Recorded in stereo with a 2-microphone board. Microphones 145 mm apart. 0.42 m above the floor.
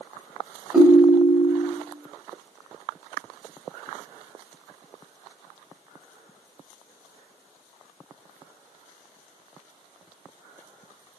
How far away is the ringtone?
About 0.9 m.